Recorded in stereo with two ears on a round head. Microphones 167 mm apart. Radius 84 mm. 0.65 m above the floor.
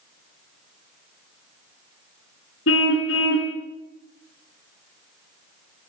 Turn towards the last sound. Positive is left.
turn(degrees=75)  # may be behind; listen again after turning